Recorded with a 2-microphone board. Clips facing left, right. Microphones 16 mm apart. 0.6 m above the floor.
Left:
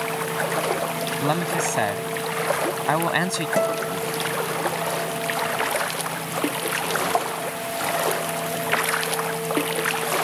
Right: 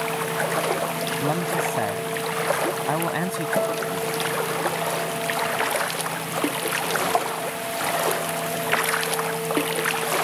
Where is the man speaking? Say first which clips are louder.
Left 2 dB; 60° left (ahead or behind).